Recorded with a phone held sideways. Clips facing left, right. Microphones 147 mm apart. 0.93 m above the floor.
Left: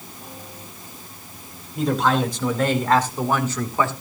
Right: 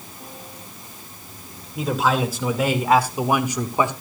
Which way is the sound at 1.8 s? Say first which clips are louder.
Left 1 dB; 5° right (ahead or behind).